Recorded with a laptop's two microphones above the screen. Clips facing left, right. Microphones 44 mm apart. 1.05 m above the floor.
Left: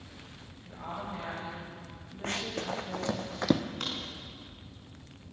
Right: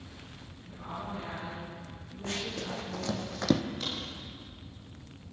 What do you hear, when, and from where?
0.7 s a woman speaking: 80° left, 7.5 m
2.2 s running footsteps: 45° left (ahead or behind), 3 m; by 3.6 s 10° left (ahead or behind), 1.9 m
3.8 s a crack: 60° left (ahead or behind), 5.5 m